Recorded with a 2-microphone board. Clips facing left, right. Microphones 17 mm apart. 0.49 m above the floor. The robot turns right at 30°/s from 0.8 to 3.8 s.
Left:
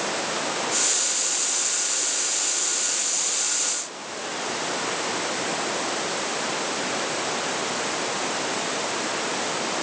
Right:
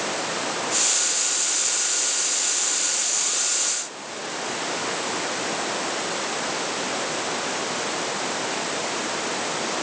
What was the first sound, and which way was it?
Only background noise.